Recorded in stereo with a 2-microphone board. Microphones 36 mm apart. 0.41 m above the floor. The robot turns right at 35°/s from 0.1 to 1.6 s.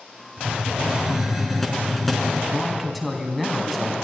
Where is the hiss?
40° right, 3.5 m; by 2.4 s 5° left, 3.5 m.